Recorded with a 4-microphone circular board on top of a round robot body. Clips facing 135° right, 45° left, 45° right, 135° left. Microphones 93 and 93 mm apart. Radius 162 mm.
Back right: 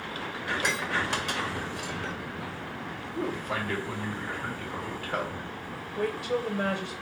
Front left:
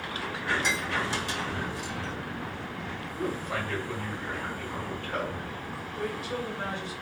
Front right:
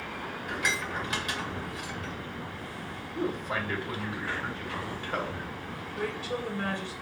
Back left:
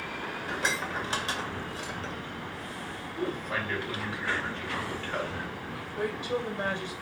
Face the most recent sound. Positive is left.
turn(degrees=-155)